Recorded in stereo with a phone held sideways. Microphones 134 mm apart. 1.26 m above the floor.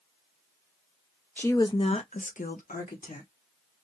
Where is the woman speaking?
15° left (ahead or behind), 0.7 m; by 3.3 s 80° left, 1.4 m.